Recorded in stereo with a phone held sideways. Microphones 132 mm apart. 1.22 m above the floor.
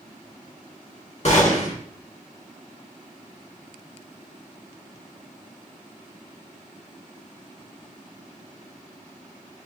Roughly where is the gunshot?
Left.